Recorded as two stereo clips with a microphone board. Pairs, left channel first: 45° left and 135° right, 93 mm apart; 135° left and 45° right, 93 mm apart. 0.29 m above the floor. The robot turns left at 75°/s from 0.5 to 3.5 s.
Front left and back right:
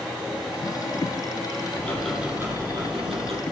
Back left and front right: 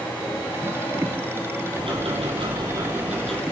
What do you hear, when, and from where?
1.8 s ticking: 20° right, 6.5 m; by 3.4 s 145° right, 6.5 m